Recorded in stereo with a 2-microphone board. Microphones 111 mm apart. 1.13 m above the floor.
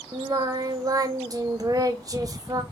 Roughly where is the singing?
Right.